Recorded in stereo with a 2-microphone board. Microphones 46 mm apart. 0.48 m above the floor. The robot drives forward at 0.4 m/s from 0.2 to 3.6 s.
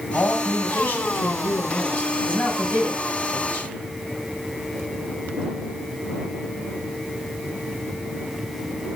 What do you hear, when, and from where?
0.1 s a man speaking: 40° left (ahead or behind), 2.5 m; by 3.7 s 30° left (ahead or behind), 4 m